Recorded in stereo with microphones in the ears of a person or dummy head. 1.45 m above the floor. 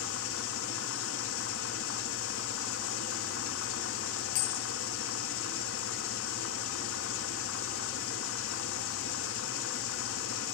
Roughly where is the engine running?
Left.